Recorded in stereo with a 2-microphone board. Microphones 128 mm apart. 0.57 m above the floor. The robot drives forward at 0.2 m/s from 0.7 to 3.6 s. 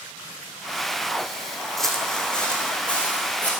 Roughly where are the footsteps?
Centre.